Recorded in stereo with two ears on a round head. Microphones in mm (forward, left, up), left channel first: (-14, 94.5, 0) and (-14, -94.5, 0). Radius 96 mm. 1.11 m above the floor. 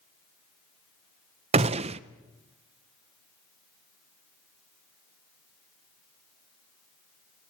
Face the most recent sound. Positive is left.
turn(degrees=-30)  # may be behind; listen again after turning